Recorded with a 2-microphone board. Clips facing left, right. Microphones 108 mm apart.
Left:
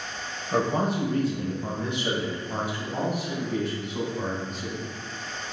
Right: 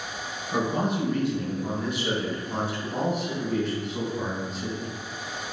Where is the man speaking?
40° left (ahead or behind), 1.2 m; by 4.8 s 5° right (ahead or behind), 2 m.